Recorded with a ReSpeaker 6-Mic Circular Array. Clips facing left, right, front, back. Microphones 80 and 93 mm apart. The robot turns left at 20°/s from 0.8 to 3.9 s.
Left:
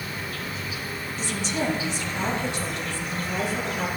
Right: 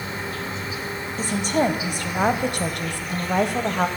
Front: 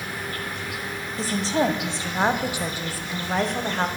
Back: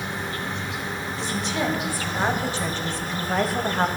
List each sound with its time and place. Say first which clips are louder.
0.0 s an insect: right 3 dB, back 2 dB; 135° right, 0.8 m; by 4.0 s 165° left, 0.8 m
1.2 s a woman speaking: right 7 dB, front 5 dB; 50° right, 0.7 m; by 3.9 s 105° right, 0.7 m